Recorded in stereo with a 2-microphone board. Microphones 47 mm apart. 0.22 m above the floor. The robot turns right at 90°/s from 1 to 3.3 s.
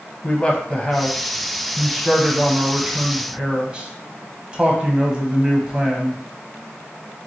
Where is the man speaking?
25° left (ahead or behind), 1.0 m; by 6.2 s 20° right (ahead or behind), 1.0 m.